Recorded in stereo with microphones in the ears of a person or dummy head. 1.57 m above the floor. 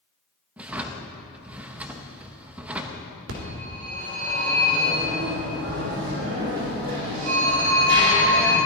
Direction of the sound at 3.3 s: 80° right.